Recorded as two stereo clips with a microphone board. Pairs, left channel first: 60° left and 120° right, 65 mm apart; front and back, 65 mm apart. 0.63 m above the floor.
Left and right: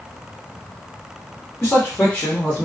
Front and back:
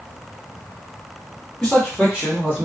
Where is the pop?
No pop in this recording.